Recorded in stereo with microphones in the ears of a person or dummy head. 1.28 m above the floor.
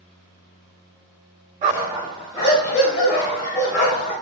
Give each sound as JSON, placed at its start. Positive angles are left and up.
{"t": 1.6, "sound": "a dog barking", "side_deg": -35, "distance_m": 1.3}